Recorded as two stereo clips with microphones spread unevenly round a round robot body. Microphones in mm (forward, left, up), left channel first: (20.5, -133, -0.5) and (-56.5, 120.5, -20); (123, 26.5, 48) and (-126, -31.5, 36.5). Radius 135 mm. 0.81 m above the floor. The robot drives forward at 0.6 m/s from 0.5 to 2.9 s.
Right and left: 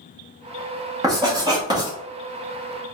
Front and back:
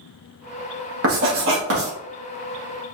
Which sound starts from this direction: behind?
Writing, at 1.0 s.